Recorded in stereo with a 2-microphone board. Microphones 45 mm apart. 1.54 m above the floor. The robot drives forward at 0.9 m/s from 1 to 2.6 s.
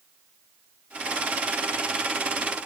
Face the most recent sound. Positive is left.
No sound to turn to.